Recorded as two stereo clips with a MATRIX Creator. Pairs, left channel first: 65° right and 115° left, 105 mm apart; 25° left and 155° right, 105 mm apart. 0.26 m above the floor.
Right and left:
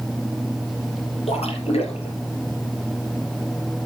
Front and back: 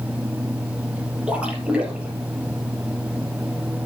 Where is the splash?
80° right, 3.5 m.